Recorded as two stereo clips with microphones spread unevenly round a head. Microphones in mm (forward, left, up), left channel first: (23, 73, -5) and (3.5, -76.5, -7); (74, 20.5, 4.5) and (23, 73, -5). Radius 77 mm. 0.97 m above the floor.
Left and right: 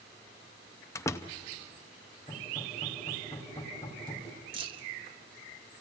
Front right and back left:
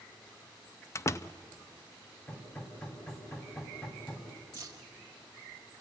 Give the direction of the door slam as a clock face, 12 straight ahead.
12 o'clock.